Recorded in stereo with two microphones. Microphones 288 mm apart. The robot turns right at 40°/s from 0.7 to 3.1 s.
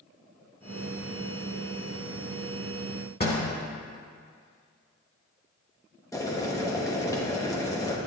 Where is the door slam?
35° left (ahead or behind), 1.6 m.